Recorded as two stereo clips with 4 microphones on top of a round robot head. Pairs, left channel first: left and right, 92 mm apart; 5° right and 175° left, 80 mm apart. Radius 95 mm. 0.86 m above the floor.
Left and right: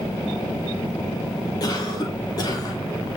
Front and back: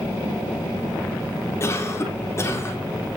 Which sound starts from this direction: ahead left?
A cough, at 1.6 s.